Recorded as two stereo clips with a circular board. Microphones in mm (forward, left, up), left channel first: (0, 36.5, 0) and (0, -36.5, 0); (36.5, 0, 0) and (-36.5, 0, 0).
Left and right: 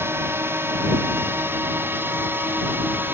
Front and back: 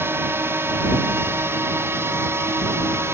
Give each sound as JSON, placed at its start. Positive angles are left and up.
{"t": 0.0, "sound": "a drone", "azimuth_deg": -135}